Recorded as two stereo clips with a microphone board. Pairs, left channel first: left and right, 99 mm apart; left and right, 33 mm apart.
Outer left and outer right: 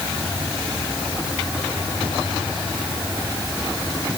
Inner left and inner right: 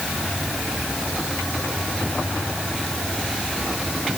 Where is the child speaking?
I don't hear a child speaking.